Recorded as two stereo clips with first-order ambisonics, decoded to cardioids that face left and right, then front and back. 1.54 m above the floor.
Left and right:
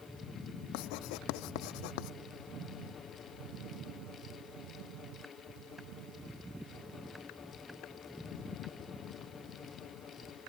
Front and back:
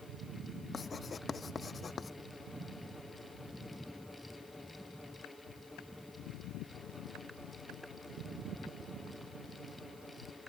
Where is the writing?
75° left.